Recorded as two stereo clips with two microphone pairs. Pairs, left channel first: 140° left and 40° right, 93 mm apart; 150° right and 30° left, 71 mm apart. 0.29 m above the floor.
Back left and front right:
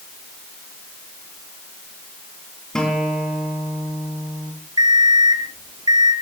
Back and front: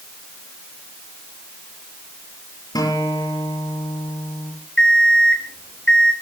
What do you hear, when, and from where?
2.8 s a guitar: 135° right, 7 m
4.8 s an alarm clock: 75° right, 3.5 m